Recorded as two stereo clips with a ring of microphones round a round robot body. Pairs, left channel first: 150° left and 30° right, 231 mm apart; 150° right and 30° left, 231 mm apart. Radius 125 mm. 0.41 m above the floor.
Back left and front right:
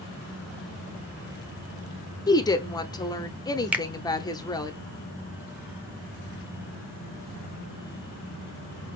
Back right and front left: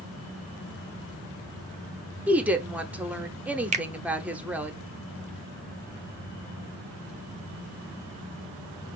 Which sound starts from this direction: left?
A woman speaking, at 2.3 s.